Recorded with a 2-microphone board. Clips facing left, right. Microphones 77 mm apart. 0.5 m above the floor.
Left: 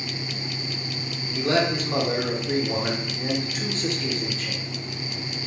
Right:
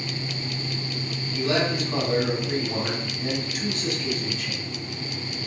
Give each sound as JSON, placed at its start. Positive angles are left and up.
{"t": 1.4, "sound": "a man speaking", "side_deg": 35, "distance_m": 1.4}